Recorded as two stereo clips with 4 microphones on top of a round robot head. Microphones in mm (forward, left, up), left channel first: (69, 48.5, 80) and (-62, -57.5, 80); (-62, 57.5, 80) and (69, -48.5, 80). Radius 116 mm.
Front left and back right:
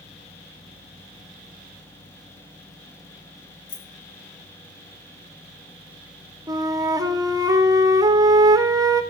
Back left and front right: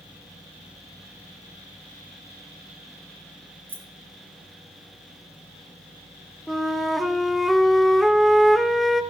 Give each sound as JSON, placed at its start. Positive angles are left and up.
{"t": 3.7, "sound": "keys jangling", "azimuth_deg": 40, "distance_m": 3.0}
{"t": 6.5, "sound": "a flute", "azimuth_deg": -130, "distance_m": 0.9}